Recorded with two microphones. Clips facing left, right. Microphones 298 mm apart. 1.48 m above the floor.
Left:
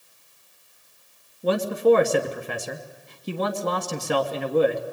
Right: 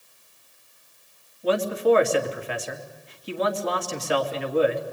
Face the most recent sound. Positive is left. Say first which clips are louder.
# left 2 dB
turn(degrees=50)  # may be behind; listen again after turning